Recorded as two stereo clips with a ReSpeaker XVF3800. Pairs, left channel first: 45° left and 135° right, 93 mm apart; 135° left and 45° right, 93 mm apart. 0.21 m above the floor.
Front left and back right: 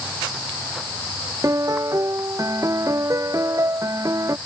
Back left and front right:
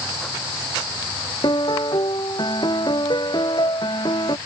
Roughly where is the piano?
Behind.